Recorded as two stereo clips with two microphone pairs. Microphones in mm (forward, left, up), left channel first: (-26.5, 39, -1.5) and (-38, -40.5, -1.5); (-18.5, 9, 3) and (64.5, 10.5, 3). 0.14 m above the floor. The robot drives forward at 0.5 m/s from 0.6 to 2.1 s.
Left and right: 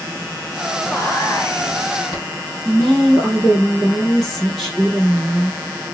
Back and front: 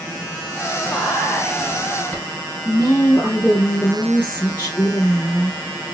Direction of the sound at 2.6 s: 170° left.